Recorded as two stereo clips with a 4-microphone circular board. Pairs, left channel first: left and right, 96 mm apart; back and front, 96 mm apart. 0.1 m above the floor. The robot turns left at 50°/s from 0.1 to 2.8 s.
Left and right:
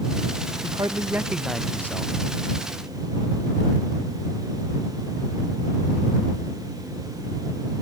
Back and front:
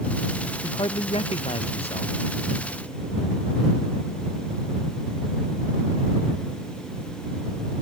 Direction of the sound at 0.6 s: 135° right.